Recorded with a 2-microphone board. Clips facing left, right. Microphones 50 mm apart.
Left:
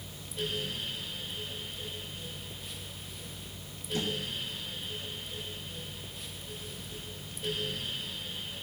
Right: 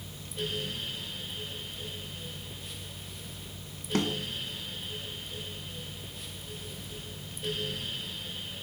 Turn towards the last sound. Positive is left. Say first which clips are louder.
# right 4 dB
turn(degrees=-70)  # may be behind; listen again after turning